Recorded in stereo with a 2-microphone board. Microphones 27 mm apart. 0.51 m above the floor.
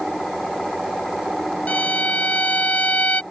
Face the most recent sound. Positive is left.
turn(degrees=70)  # may be behind; listen again after turning